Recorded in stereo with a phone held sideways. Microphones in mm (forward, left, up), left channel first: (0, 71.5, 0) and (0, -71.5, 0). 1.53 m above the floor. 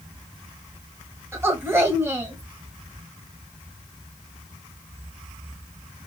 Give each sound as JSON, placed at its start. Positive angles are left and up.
{"t": 1.3, "sound": "a woman speaking", "side_deg": -20, "distance_m": 1.4}